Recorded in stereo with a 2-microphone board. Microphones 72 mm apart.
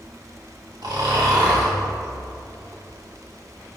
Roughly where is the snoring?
Right.